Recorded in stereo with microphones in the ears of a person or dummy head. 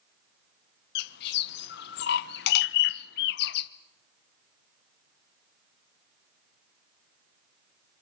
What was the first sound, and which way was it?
A bird, 60° left (ahead or behind).